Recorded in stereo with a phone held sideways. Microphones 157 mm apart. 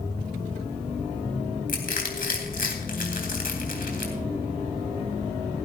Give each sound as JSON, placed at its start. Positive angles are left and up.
{"t": 1.7, "sound": "crushing", "side_deg": 65, "distance_m": 3.0}